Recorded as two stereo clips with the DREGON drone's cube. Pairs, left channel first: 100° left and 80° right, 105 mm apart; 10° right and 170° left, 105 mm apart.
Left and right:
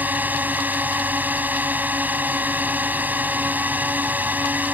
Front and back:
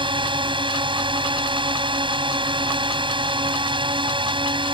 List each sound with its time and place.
0.0 s a drone: 150° right